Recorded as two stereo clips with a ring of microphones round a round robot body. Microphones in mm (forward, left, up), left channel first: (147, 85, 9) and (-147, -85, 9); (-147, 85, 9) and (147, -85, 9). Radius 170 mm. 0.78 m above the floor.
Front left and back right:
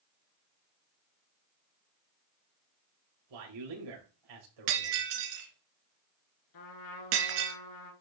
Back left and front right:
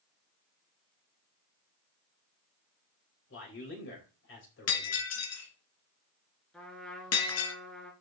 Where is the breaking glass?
160° right, 2.5 m.